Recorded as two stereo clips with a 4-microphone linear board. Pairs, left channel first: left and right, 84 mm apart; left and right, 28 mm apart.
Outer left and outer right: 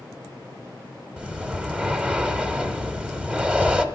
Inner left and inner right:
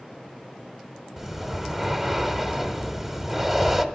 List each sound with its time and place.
1.2 s breathing: 15° right (ahead or behind), 1.0 m